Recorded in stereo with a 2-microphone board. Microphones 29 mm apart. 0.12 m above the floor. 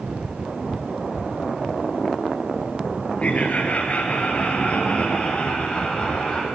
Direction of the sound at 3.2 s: 45° left (ahead or behind).